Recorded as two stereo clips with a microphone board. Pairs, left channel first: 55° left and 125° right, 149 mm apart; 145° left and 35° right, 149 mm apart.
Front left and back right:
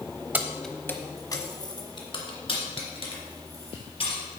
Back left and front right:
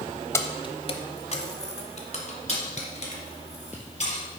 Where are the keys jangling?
Straight behind, 0.7 m; by 4.2 s 105° left, 4 m.